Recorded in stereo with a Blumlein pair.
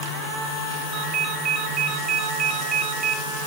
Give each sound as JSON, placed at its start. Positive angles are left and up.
{"t": 0.9, "sound": "a ringtone", "azimuth_deg": -25, "distance_m": 1.5}